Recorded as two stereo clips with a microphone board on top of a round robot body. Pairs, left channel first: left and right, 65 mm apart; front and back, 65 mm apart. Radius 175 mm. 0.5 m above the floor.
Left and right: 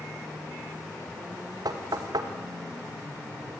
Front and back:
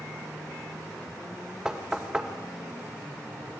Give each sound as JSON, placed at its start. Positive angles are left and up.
{"t": 1.6, "sound": "knocking", "azimuth_deg": -100, "distance_m": 2.0}